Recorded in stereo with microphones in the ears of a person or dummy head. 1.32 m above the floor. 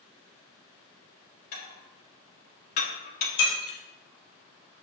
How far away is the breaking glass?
About 8 m.